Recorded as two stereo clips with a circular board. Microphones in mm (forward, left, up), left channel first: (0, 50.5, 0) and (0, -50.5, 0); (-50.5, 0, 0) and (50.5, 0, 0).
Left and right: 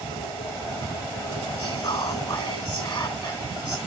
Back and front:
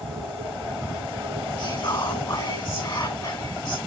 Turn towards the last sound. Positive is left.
turn(degrees=140)